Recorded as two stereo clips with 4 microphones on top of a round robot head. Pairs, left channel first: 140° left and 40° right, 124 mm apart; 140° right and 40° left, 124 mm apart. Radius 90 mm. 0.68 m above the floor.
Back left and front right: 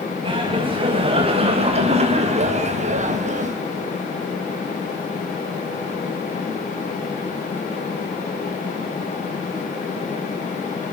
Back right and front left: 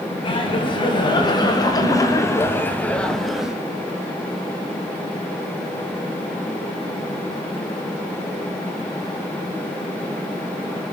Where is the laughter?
90° right, 6.5 m; by 3.6 s 40° right, 3 m.